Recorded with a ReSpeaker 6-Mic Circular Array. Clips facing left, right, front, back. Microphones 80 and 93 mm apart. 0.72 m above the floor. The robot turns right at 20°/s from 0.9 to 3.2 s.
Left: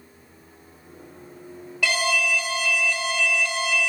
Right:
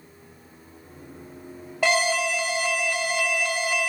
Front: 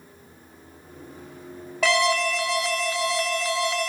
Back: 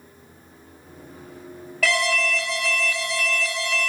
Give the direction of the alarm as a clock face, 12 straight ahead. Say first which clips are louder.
Right 2 dB, front 2 dB; 2 o'clock.